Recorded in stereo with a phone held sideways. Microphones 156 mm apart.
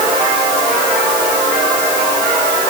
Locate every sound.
Only background noise.